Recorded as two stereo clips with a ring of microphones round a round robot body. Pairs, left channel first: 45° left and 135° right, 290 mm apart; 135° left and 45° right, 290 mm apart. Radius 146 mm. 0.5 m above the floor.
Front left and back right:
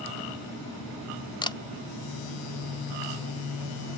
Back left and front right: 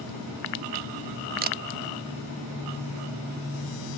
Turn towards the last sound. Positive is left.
turn(degrees=-20)